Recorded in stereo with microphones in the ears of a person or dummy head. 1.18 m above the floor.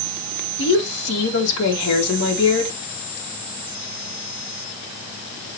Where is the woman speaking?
60° left (ahead or behind), 2.5 m.